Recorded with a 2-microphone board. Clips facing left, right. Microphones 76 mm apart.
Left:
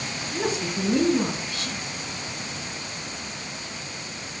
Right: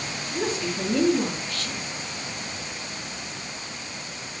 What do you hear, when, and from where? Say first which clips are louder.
0.3 s a woman speaking: even; 20° left (ahead or behind), 3 m